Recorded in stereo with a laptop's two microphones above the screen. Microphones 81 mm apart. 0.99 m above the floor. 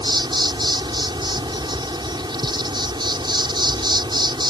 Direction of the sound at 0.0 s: 70° right (ahead or behind).